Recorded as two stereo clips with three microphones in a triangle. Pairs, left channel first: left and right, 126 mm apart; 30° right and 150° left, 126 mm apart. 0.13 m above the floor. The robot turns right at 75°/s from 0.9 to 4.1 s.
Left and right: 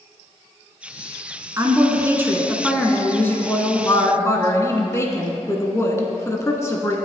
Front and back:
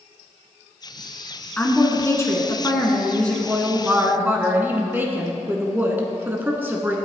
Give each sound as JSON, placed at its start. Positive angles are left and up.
{"t": 1.6, "sound": "a woman speaking", "azimuth_deg": -90, "distance_m": 1.1}